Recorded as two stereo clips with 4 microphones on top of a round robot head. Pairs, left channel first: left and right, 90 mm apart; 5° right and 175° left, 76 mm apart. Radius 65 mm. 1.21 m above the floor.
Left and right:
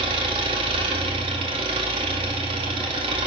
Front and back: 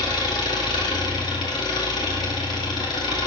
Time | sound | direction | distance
0.0 | an engine running | 50° right | 2.5 m